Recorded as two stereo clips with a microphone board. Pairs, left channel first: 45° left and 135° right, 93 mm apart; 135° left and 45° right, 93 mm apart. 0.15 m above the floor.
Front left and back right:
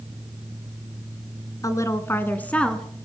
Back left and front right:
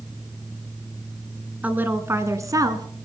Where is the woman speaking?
20° left, 1.6 m; by 2.9 s 35° right, 1.6 m.